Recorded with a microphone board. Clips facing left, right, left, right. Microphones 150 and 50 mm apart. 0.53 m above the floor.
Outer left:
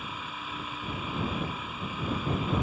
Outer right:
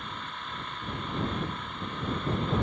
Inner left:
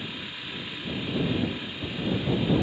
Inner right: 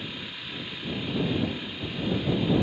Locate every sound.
0.0 s an engine running: 5° left (ahead or behind)